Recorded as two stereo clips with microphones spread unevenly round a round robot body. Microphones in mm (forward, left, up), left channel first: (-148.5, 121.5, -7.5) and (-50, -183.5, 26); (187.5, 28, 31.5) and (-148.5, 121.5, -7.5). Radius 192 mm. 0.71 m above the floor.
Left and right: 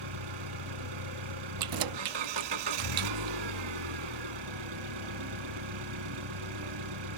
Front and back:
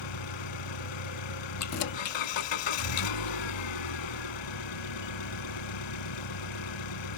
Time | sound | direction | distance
0.0 | an engine running | 45° right | ?
1.6 | keys jangling | 65° right | ?